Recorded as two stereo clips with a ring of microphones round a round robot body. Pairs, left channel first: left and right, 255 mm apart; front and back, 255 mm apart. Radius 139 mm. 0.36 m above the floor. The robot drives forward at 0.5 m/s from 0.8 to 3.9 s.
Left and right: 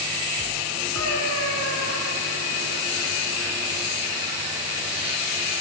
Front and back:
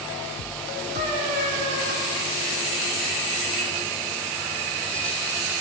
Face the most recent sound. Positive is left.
turn(degrees=-130)